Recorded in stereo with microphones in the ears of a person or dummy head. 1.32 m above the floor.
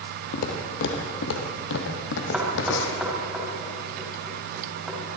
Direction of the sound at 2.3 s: 5° right (ahead or behind).